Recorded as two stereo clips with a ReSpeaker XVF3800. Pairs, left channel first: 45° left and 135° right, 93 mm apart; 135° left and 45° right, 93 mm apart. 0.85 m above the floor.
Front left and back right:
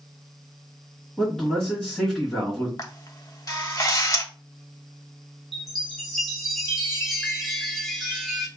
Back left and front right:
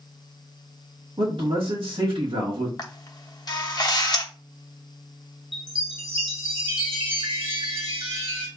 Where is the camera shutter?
95° left, 0.7 m.